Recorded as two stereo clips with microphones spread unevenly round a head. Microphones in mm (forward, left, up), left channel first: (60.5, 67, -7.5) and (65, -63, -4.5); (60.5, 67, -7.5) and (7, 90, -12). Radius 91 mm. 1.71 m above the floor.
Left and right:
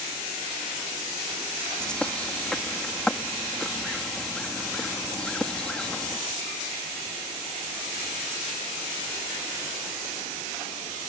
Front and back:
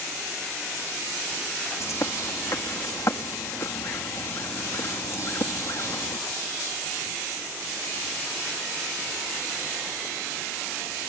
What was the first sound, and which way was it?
A bird, 10° left.